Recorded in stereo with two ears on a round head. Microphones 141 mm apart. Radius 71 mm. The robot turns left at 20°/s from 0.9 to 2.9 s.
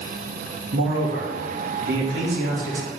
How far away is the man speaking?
About 2.5 m.